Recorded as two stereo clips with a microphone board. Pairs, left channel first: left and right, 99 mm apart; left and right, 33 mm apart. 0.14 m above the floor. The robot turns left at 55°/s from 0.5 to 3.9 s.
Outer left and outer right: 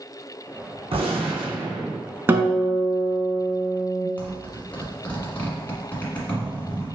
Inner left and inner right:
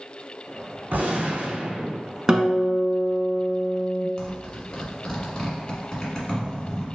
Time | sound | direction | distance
0.9 | a gunshot | 80° right | 1.3 m
2.3 | a guitar | 20° right (ahead or behind) | 0.9 m
4.2 | a zipper | 15° left (ahead or behind) | 1.6 m